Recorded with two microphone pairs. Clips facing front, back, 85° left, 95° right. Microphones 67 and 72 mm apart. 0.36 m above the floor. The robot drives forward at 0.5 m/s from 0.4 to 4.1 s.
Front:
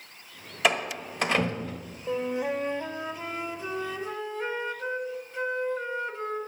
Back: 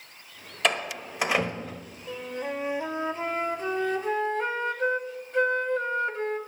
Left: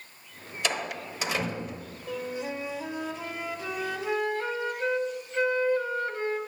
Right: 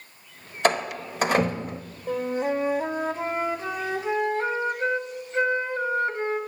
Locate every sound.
0.6 s a door slam: 85° right, 1.3 m; by 1.8 s 115° right, 1.4 m
2.1 s a flute: 55° right, 0.5 m; by 6.4 s 155° right, 0.9 m